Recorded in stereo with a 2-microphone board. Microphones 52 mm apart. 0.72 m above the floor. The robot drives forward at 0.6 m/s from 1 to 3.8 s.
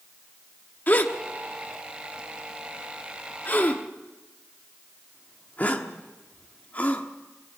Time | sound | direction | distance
0.9 | a gasp | 35° left (ahead or behind) | 1.1 m